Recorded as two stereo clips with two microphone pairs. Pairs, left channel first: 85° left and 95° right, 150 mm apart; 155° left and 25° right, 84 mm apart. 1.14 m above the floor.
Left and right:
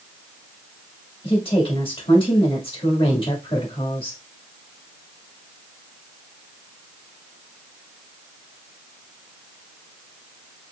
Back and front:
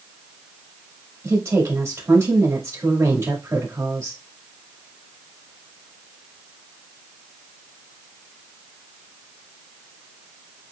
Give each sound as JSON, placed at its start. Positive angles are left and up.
{"t": 1.2, "sound": "a woman speaking", "azimuth_deg": 35, "distance_m": 1.7}